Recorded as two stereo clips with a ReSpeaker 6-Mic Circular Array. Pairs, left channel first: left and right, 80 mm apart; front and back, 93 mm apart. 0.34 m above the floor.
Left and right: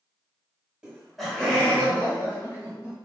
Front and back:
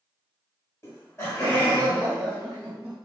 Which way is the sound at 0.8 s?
20° right.